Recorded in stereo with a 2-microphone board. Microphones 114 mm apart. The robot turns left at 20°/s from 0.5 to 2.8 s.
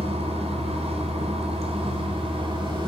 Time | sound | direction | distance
0.0 | running water | 75° right | 1.0 m